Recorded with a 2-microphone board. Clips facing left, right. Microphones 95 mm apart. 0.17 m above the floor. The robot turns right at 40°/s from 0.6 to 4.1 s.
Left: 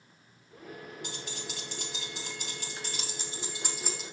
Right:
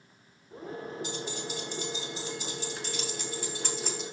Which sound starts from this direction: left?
Keys jangling, at 1.0 s.